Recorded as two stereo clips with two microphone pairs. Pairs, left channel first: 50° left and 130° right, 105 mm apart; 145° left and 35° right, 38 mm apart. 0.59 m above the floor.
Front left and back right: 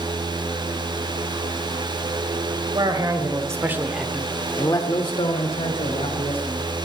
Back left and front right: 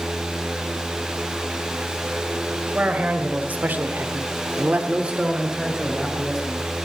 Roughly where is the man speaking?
Right.